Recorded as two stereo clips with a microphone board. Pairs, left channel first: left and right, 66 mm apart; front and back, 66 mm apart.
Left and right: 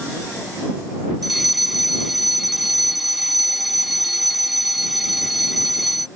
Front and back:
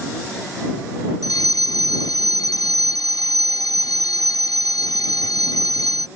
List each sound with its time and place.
1.2 s a fire alarm: straight ahead